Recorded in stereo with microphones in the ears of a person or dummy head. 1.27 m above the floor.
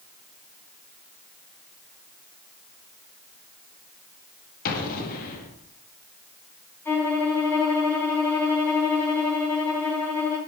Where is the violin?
15° left (ahead or behind), 3.5 m.